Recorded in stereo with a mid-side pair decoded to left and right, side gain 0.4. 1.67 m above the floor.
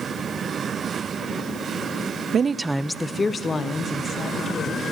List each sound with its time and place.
2.3 s a woman speaking: 55° right, 0.7 m; by 4.8 s 55° left, 3 m